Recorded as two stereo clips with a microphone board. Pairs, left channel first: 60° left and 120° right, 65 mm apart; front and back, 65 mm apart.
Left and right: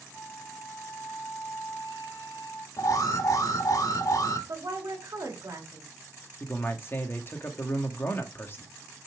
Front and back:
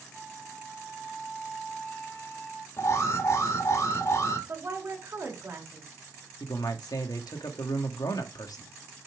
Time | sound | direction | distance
0.1 | a flute | 90° left | 2.5 m
2.8 | an alarm | 40° left | 2.5 m
4.5 | a woman speaking | 135° right | 2.5 m
6.4 | a man speaking | 5° left | 1.6 m